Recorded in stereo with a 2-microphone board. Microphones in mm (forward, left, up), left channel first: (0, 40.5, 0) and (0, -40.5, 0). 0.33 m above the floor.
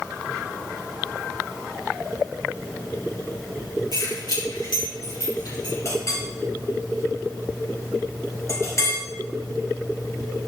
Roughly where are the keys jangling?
Left.